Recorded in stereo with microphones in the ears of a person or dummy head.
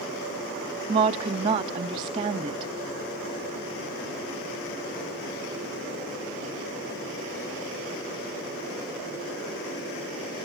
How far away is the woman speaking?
About 0.6 m.